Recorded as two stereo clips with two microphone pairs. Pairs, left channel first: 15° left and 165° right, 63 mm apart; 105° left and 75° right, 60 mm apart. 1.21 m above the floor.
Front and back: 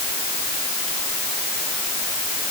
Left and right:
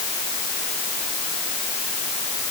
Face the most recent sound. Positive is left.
No sound to turn to.